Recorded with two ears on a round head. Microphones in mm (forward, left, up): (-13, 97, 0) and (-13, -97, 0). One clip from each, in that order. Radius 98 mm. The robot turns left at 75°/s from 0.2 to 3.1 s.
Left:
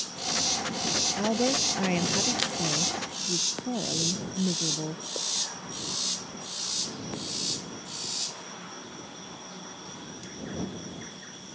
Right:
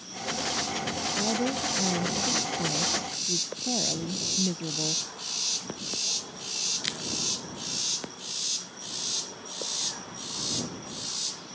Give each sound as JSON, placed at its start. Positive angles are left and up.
{"t": 1.2, "sound": "a woman speaking", "azimuth_deg": 130}